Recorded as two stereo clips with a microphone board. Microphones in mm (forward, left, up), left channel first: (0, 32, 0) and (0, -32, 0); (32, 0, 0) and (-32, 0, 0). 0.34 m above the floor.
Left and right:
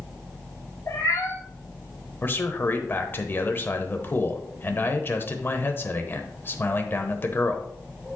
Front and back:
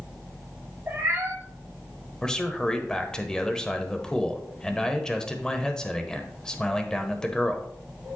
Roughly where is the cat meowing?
Behind left.